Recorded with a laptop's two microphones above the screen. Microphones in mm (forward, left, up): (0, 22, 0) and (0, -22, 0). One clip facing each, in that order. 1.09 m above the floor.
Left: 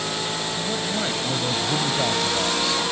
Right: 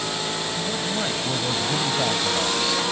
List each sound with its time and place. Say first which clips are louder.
0.6 s a man speaking: left 1 dB; 5° left (ahead or behind)